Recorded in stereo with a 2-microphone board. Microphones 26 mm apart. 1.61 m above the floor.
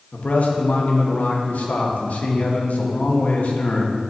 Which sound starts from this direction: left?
A man speaking, at 0.1 s.